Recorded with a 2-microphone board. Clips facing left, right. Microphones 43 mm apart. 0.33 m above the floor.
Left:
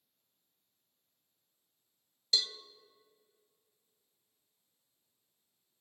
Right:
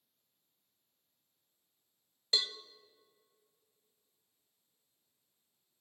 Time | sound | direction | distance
2.3 | a cowbell | 30° right (ahead or behind) | 0.6 m